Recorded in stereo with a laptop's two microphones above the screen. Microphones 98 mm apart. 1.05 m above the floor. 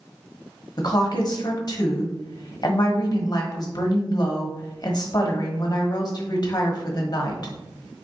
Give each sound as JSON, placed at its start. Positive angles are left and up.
{"t": 0.8, "sound": "a woman speaking", "side_deg": 45, "distance_m": 1.2}